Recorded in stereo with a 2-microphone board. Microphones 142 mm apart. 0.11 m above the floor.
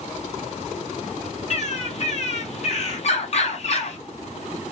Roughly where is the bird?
Left.